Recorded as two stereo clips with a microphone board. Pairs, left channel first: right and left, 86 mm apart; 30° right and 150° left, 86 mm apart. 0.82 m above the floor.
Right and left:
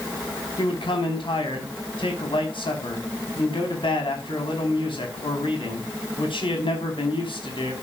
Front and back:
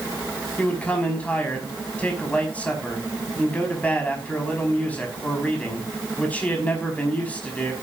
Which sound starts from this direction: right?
A man speaking, at 0.6 s.